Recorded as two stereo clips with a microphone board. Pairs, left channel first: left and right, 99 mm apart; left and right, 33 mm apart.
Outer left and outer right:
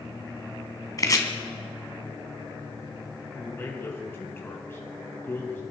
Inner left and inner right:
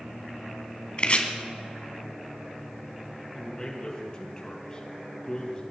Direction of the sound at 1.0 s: 35° left (ahead or behind).